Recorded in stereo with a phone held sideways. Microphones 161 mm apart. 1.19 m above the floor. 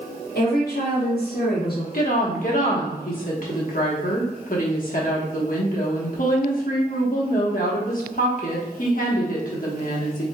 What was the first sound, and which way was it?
A woman speaking, 75° left (ahead or behind).